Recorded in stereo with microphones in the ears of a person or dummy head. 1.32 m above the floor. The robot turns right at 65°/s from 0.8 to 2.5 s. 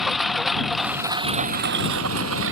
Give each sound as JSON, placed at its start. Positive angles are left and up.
{"t": 0.0, "sound": "a lawn mower", "side_deg": 0}